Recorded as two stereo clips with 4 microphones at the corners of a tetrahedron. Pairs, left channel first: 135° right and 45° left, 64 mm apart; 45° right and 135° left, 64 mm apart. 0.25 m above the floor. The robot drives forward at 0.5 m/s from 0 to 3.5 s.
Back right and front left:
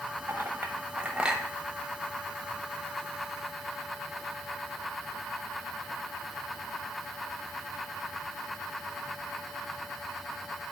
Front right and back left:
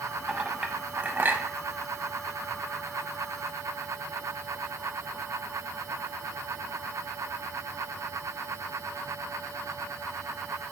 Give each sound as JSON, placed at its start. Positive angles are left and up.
{"t": 0.3, "sound": "a clink", "azimuth_deg": 55, "distance_m": 0.9}